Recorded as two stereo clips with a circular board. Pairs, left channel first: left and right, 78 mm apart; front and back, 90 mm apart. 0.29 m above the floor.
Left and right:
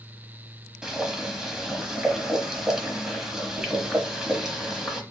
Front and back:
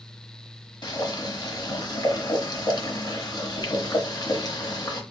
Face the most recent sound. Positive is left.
turn(degrees=-10)